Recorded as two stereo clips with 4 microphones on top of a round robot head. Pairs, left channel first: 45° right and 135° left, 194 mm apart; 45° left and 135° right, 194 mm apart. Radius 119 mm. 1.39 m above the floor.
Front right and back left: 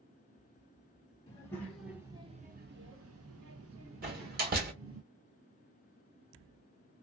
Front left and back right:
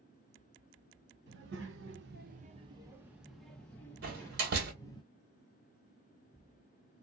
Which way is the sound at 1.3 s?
115° right.